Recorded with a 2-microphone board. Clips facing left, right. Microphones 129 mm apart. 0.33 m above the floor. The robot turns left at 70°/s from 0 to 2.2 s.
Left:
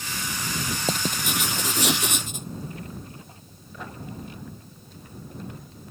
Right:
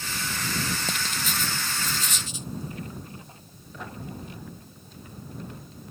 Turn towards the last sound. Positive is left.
turn(degrees=55)